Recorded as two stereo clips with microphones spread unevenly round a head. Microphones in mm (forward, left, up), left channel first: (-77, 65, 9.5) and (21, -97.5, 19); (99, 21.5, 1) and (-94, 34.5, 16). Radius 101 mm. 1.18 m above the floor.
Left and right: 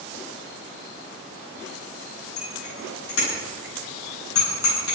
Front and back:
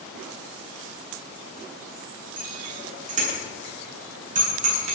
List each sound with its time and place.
2.4 s a bicycle bell: 125° left, 9.5 m